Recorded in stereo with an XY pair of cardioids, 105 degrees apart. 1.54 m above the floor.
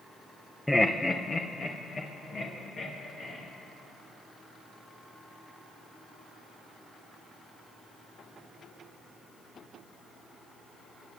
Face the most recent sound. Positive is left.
turn(degrees=50)